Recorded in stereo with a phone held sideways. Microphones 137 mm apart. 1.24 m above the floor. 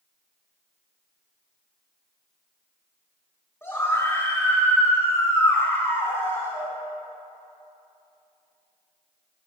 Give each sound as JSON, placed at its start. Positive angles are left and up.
{"t": 3.6, "sound": "a scream", "side_deg": 20, "distance_m": 3.5}